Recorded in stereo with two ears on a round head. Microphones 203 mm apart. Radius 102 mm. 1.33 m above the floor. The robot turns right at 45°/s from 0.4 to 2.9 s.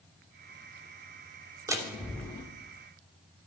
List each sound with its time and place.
1.7 s a door slam: 15° right (ahead or behind), 2.5 m; by 2.4 s 20° left (ahead or behind), 2.5 m